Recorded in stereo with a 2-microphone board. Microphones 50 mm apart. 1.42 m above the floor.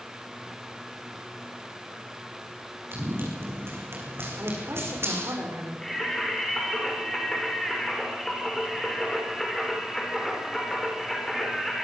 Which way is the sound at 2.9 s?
45° right (ahead or behind).